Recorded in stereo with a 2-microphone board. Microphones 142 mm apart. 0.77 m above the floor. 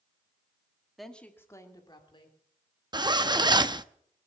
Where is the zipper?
30° right (ahead or behind), 0.6 m.